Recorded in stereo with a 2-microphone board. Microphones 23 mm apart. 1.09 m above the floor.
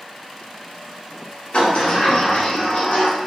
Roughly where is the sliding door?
Left.